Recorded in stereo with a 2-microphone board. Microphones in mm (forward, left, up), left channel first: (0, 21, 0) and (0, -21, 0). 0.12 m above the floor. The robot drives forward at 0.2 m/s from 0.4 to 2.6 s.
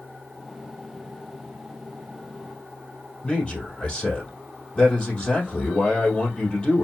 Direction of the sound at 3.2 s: 25° left (ahead or behind).